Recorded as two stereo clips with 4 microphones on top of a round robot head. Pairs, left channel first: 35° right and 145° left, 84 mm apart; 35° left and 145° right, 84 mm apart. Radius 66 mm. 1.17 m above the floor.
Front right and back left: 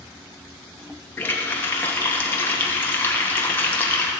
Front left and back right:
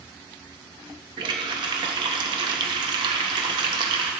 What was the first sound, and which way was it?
A running tap, 105° right.